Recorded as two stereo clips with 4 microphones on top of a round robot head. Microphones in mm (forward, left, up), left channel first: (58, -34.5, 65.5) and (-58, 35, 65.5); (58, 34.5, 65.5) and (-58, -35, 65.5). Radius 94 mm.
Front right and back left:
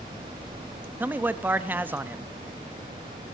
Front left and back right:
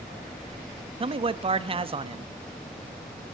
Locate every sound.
1.0 s a man speaking: 140° right, 0.9 m